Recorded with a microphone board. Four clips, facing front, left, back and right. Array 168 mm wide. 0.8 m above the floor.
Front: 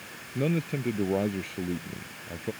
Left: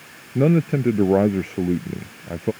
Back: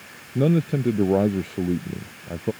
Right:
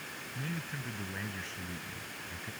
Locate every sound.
0.3 s a man speaking: 110° left